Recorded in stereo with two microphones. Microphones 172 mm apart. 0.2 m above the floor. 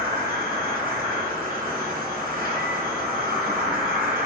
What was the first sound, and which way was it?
An insect, 60° right (ahead or behind).